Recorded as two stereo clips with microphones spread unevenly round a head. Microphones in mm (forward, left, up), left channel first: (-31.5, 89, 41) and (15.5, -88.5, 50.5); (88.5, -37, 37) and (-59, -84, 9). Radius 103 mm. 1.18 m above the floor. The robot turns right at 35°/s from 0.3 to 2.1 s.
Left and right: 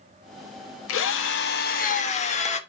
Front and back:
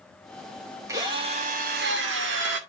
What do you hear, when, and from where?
0.9 s a drill: 120° left, 1.1 m; by 2.6 s 160° left, 1.1 m